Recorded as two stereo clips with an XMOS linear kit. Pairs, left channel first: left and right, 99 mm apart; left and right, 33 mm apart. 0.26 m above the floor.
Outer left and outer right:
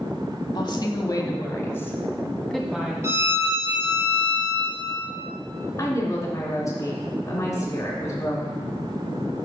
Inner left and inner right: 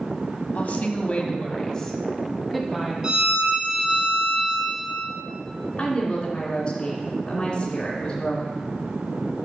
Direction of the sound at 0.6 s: 50° left (ahead or behind).